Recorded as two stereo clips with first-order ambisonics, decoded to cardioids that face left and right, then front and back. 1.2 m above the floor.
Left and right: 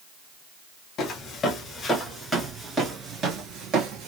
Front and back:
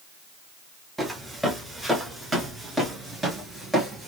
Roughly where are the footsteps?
Left.